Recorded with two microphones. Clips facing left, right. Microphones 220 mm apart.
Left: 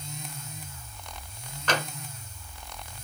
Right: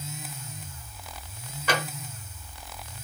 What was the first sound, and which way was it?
Tapping, 10° right (ahead or behind).